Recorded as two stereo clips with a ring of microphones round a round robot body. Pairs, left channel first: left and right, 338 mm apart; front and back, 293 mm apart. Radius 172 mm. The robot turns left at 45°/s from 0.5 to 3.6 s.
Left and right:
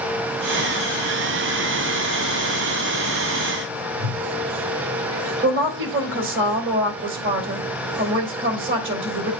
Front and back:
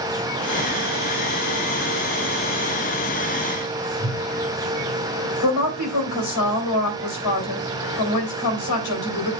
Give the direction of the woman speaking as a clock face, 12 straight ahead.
1 o'clock.